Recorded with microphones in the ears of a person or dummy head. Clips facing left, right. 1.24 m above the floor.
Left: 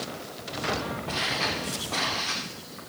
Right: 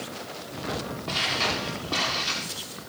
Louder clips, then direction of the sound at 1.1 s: Right 1 dB; 55° right (ahead or behind).